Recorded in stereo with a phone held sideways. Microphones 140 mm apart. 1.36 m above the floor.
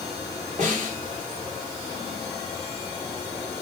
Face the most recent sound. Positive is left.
turn(degrees=-55)  # may be behind; listen again after turning